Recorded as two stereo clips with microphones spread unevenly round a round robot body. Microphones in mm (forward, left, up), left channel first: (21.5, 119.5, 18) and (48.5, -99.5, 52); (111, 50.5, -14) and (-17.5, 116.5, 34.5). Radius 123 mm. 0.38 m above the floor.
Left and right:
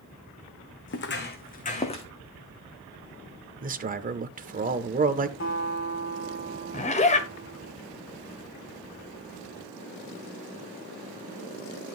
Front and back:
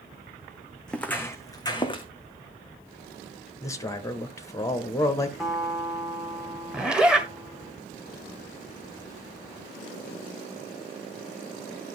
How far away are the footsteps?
About 2.0 m.